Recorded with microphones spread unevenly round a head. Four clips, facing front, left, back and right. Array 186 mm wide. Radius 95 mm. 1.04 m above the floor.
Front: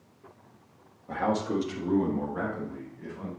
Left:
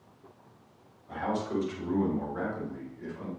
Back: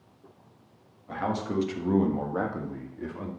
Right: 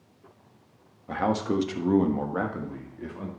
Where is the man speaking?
70° right, 1.4 m; by 3.3 s 155° right, 1.9 m.